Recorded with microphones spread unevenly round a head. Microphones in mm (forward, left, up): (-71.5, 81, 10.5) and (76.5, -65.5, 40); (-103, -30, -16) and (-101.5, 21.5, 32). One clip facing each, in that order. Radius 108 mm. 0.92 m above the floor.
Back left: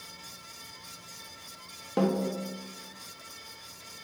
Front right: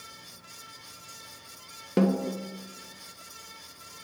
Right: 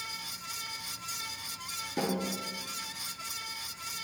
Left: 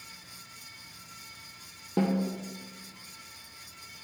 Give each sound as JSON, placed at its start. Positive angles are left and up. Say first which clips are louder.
{"t": 2.0, "sound": "a snare drum", "louder": "front right 2 dB, left 4 dB", "azimuth_deg": 15, "distance_m": 0.8}